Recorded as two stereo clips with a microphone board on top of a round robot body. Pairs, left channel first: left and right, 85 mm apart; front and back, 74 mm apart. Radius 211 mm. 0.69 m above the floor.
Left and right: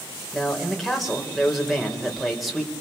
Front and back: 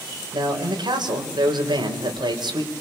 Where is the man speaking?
Straight behind, 4 m.